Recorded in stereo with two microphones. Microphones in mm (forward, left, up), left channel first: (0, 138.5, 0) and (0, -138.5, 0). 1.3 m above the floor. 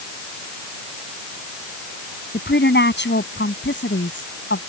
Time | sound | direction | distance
2.3 | a woman speaking | 40° left (ahead or behind) | ?